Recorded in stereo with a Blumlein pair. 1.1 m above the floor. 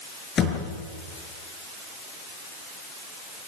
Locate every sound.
0.4 s a thud: 25° left, 5.5 m